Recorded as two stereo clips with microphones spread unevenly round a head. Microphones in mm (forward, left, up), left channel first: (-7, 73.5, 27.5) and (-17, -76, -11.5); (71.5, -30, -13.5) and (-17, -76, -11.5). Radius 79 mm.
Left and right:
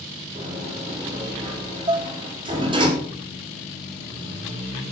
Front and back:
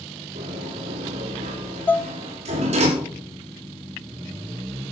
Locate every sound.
0.3 s a sliding door: 155° right, 4.5 m
1.9 s dishes clattering: 25° right, 0.7 m